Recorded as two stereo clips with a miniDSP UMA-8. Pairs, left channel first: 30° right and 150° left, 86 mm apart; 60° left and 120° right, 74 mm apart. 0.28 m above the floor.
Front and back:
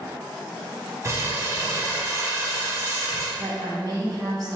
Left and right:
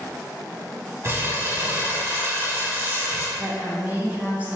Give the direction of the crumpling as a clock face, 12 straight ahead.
6 o'clock.